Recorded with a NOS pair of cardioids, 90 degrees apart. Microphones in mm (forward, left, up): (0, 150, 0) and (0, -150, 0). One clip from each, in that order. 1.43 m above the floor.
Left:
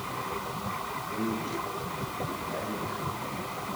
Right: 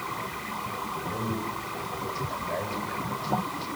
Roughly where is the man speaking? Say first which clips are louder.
Right 1 dB; ahead right.